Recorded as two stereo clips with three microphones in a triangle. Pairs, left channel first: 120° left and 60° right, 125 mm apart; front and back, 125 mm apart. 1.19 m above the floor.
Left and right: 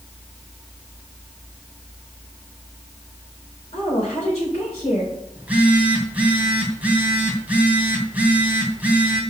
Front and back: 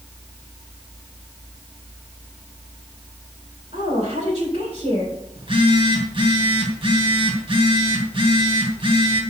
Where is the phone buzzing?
135° right, 2.5 m.